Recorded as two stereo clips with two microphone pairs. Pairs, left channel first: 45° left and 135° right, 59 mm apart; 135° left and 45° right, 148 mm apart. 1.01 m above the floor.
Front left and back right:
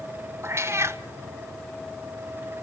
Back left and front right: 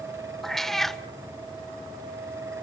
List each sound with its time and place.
0.4 s a cat meowing: 135° right, 0.9 m